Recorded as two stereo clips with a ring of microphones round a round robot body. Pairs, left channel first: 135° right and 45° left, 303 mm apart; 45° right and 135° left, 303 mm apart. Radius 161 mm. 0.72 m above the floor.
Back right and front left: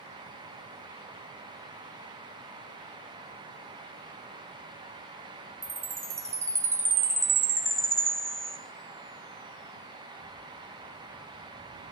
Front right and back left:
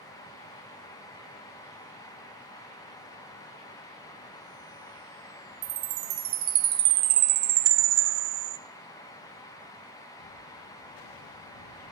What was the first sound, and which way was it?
A chime, 125° left.